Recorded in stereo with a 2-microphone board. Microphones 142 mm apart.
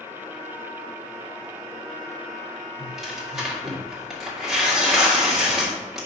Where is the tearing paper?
Centre (ahead or behind), 1.9 m.